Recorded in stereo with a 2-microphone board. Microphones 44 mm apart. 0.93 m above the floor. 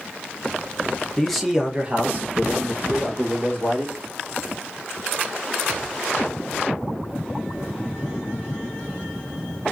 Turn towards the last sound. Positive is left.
turn(degrees=-70)  # may be behind; listen again after turning